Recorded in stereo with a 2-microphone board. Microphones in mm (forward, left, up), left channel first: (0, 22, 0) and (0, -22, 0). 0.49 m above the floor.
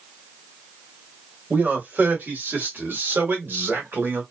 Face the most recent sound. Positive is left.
turn(degrees=-60)  # may be behind; listen again after turning